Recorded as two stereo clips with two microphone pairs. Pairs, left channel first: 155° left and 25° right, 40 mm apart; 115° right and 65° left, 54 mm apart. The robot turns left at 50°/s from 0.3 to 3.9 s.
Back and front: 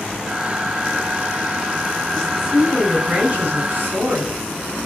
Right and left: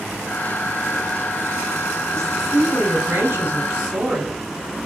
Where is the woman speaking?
90° left, 4 m; by 4.5 s straight ahead, 4 m.